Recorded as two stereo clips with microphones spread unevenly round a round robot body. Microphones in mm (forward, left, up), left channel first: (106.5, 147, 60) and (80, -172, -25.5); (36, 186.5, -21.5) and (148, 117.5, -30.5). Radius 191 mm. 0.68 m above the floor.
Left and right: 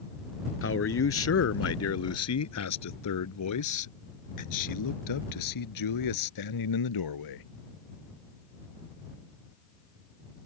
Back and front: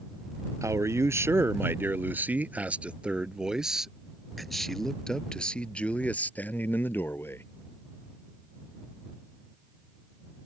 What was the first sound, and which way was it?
A man speaking, 35° left.